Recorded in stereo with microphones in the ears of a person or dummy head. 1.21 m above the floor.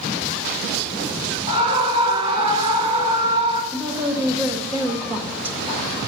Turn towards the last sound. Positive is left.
turn(degrees=-10)  # may be behind; listen again after turning